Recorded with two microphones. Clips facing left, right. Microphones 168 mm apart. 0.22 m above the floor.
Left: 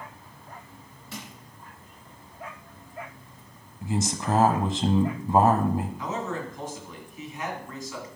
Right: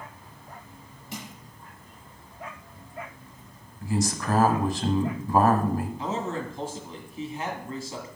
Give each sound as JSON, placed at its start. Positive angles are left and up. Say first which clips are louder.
{"t": 1.1, "sound": "crushing", "louder": "right 2 dB", "side_deg": -15, "distance_m": 3.0}
{"t": 3.8, "sound": "a man speaking", "louder": "right 1 dB", "side_deg": 20, "distance_m": 1.0}
{"t": 6.0, "sound": "a man speaking", "louder": "right 1 dB", "side_deg": -30, "distance_m": 1.9}